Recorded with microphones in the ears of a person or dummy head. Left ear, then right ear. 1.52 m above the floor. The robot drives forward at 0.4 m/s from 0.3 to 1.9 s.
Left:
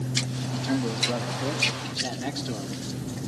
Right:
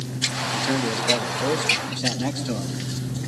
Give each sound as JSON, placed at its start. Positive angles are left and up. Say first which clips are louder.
{"t": 0.5, "sound": "a man speaking", "louder": "right 5 dB", "side_deg": -45, "distance_m": 1.1}